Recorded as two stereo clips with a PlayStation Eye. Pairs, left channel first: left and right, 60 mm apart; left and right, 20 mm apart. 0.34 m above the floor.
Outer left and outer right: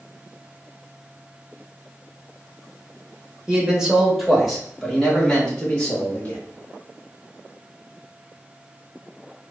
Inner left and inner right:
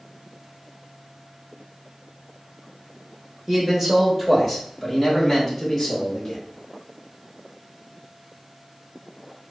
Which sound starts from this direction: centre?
A man speaking, at 3.5 s.